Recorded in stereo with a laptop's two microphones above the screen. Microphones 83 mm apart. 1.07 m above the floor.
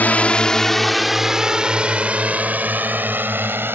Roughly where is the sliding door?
I don't hear a sliding door.